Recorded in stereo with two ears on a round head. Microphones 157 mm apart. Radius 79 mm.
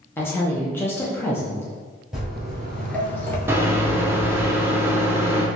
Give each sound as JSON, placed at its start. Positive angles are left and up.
{"t": 0.2, "sound": "a woman speaking", "side_deg": 15, "distance_m": 0.6}
{"t": 2.1, "sound": "footsteps", "side_deg": -5, "distance_m": 1.3}
{"t": 3.5, "sound": "a microwave", "side_deg": -15, "distance_m": 0.6}